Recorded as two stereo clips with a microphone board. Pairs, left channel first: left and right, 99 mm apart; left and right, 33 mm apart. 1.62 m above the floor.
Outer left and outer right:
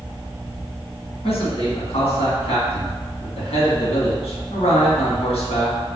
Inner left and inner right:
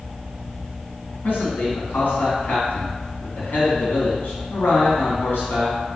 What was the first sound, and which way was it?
A man speaking, 85° left.